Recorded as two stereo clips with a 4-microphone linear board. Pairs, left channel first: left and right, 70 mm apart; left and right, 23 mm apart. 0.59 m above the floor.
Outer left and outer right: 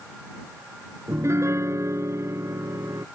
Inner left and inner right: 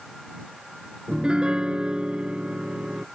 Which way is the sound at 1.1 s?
45° right (ahead or behind).